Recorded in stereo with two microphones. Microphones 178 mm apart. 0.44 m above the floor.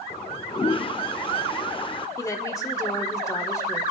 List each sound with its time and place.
0.1 s a toilet flushing: 30° left (ahead or behind), 0.6 m
2.2 s a woman speaking: 20° left (ahead or behind), 1.3 m